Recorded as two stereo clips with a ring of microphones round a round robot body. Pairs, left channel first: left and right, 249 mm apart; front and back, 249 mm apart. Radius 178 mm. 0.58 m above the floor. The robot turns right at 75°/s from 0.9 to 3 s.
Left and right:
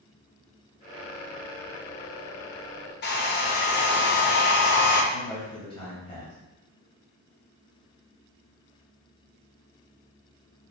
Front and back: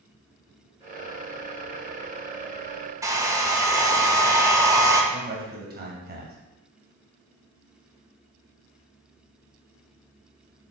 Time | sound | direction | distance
3.0 | a hair dryer | 105° left | 0.7 m
5.1 | a man speaking | 155° left | 0.9 m